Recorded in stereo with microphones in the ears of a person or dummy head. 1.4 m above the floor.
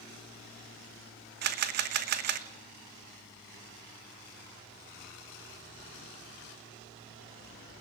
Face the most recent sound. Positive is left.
turn(degrees=-50)  # may be behind; listen again after turning